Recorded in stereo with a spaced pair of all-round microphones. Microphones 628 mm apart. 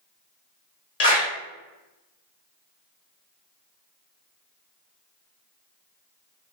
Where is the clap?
75° left (ahead or behind), 0.9 m.